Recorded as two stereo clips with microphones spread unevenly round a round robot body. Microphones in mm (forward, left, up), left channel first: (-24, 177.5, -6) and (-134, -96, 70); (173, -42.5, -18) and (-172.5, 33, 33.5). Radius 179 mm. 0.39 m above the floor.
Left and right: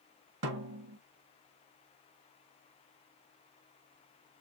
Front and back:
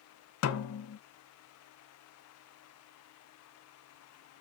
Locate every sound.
0.4 s a snare drum: 60° right, 0.5 m